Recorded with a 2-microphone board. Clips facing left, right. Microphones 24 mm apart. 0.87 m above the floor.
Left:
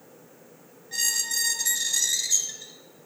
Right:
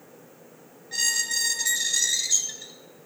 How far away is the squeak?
About 0.9 m.